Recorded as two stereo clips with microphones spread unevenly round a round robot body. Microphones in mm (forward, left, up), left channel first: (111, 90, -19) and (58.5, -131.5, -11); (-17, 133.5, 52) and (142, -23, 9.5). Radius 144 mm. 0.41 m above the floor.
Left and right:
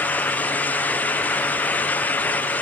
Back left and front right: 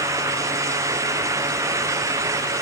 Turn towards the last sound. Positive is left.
No sound to turn to.